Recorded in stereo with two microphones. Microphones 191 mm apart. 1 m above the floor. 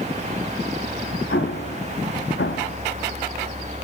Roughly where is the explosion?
Left.